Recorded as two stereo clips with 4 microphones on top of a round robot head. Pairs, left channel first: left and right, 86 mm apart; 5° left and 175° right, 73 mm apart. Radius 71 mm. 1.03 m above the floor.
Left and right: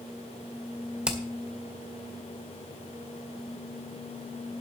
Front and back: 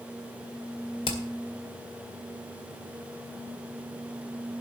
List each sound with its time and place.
1.1 s hammering: 10° right, 2.0 m